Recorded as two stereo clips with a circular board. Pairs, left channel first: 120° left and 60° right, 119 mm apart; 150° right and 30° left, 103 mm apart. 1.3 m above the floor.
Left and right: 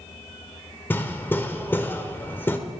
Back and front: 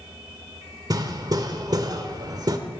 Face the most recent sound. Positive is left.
turn(degrees=55)